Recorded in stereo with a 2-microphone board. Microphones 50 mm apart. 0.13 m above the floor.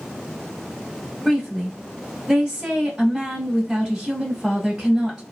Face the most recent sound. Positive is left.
turn(degrees=-15)  # may be behind; listen again after turning